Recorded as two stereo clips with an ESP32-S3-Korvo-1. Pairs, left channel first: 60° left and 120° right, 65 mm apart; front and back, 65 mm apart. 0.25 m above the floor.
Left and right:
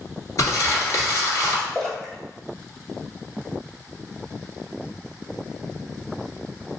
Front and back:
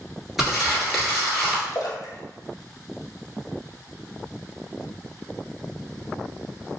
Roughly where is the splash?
Ahead.